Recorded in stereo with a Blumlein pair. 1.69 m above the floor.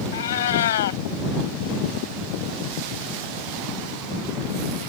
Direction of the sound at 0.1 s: 60° left.